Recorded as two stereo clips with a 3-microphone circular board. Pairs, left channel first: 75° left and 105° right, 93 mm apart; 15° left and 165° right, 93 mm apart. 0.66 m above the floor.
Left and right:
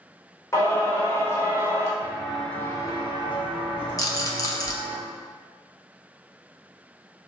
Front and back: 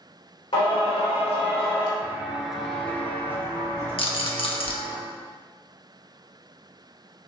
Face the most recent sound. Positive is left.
turn(degrees=25)